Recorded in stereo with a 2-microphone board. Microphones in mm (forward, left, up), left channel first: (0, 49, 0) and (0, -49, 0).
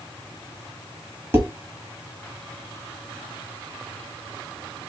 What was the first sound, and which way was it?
Dishes clattering, 25° right (ahead or behind).